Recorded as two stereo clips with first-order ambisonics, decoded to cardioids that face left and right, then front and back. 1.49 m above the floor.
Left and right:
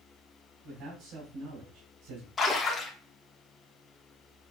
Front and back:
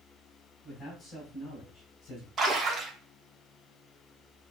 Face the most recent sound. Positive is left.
turn(degrees=145)